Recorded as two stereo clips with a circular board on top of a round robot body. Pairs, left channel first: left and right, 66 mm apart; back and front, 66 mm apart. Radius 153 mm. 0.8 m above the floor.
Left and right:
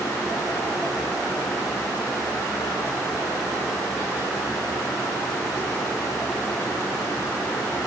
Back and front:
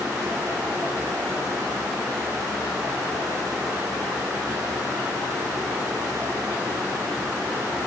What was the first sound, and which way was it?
Only background noise.